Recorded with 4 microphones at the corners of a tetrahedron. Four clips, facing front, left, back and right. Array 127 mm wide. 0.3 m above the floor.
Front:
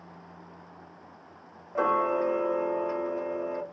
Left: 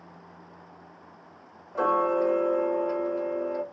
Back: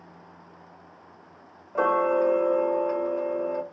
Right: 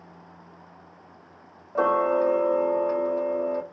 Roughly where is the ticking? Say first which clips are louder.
Right 2 dB, back 3 dB; right.